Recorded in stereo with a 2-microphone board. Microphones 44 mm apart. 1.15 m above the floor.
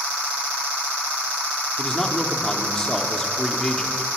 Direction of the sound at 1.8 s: 15° left (ahead or behind).